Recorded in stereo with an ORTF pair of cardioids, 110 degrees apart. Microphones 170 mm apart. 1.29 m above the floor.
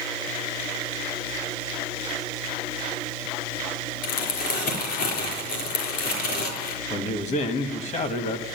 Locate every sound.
4.0 s crumpling: 70° left, 4 m
6.9 s a man speaking: 40° left, 1.8 m